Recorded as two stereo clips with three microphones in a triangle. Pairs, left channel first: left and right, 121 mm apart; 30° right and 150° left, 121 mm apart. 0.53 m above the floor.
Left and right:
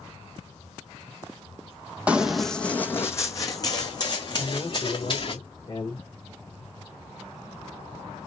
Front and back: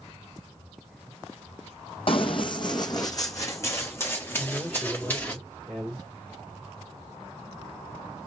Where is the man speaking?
55° left, 1.7 m.